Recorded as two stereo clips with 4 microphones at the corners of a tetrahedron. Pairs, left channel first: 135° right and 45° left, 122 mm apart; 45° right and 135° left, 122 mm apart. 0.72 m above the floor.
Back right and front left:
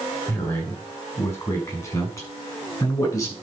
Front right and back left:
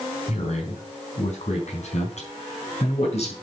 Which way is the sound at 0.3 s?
65° right.